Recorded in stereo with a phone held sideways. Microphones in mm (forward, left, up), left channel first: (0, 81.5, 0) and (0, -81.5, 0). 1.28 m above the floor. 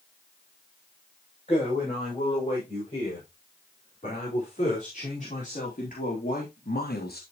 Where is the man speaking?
35° left (ahead or behind), 6.5 m; by 7.2 s 70° left (ahead or behind), 1.3 m.